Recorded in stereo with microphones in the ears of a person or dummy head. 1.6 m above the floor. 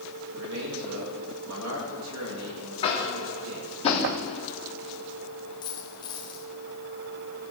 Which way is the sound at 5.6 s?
25° left (ahead or behind).